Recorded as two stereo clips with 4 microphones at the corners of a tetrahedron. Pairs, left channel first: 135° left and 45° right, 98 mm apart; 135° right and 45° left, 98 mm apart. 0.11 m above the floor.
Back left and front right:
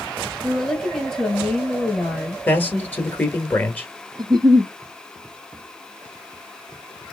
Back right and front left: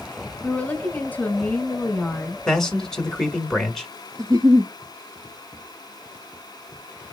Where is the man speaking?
155° left, 1.2 m.